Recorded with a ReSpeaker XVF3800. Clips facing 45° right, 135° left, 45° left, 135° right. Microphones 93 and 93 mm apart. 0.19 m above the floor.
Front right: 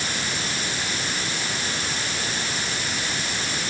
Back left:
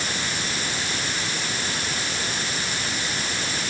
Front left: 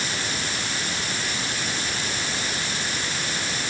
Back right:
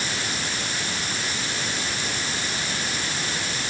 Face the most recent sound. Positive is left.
No sound to turn to.